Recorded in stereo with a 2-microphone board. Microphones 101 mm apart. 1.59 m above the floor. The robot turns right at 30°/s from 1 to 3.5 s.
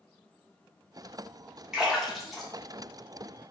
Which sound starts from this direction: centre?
A splash, at 1.7 s.